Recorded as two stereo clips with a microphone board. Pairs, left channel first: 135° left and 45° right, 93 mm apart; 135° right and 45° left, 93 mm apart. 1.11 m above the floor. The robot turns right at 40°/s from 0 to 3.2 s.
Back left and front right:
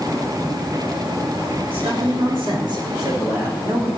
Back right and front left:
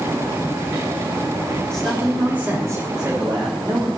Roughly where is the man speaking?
Ahead right.